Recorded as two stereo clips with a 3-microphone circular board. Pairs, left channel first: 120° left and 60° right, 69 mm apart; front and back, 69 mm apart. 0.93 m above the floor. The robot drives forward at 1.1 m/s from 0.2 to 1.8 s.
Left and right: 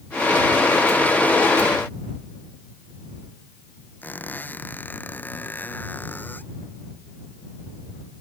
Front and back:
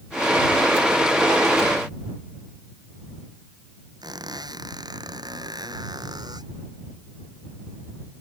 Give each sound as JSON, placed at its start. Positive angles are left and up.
{"t": 4.0, "sound": "a squeak", "azimuth_deg": -175}